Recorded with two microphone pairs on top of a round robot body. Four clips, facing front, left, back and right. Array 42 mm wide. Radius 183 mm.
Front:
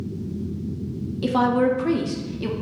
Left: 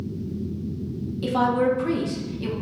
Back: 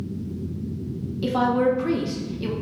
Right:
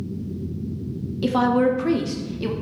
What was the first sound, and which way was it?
A woman speaking, 50° right.